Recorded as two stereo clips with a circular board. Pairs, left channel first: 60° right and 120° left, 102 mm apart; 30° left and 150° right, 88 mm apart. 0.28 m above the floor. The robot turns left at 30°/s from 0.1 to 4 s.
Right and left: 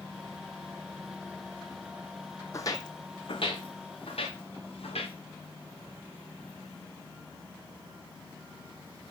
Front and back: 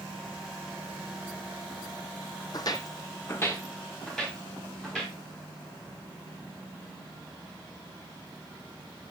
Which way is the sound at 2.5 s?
5° right.